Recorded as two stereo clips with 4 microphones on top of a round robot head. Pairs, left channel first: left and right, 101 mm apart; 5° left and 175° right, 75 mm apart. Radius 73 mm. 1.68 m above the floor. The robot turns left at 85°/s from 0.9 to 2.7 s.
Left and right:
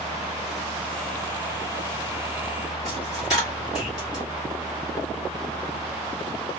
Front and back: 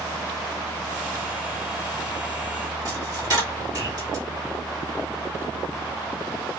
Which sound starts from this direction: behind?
A dropped coin, at 2.9 s.